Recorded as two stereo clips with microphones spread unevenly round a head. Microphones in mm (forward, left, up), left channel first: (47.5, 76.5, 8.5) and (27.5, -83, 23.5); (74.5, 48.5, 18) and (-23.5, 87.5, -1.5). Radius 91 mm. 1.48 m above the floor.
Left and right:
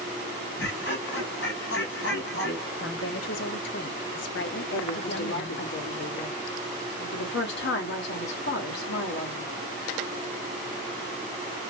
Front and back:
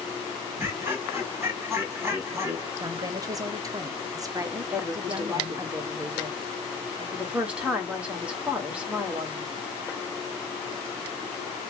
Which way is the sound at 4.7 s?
75° left.